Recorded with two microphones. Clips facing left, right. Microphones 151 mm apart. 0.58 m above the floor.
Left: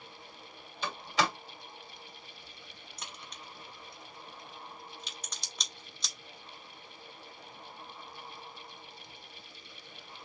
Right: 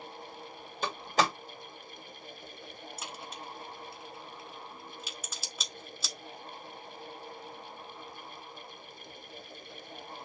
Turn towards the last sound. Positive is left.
turn(degrees=-5)  # may be behind; listen again after turning